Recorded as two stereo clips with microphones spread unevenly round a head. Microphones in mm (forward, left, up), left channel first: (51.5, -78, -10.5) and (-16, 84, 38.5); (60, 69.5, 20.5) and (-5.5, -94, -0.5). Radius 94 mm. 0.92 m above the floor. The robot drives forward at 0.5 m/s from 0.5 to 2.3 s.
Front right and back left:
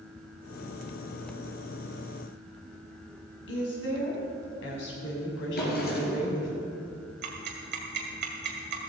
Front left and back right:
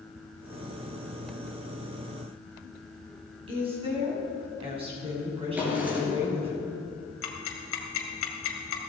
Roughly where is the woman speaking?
Ahead right.